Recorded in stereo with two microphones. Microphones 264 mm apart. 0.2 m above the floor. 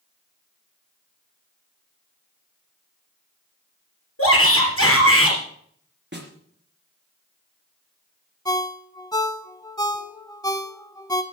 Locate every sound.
4.2 s a shout: 65° left (ahead or behind), 3 m
6.1 s a snare drum: 45° right (ahead or behind), 3 m
8.4 s a ringtone: 15° left (ahead or behind), 1.2 m